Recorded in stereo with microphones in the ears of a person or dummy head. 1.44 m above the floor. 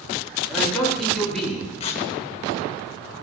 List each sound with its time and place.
0.5 s a man speaking: centre (ahead or behind), 8 m
1.8 s tearing paper: 30° left (ahead or behind), 1.3 m